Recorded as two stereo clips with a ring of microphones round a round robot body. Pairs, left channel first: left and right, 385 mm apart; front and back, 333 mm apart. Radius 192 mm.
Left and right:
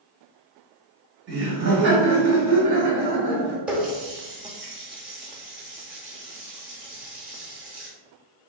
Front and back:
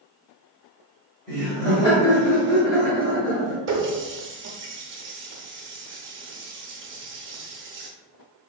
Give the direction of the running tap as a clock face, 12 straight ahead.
6 o'clock.